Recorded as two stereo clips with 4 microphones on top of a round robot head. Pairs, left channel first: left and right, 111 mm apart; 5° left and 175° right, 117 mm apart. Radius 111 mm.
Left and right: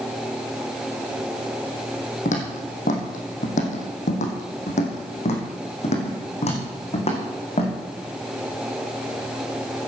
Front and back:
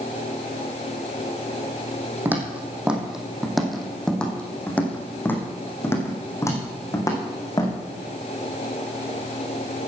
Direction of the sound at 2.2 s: 110° left.